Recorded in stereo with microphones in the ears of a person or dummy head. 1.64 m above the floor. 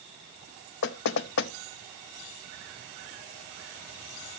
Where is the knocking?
60° left (ahead or behind), 0.6 m.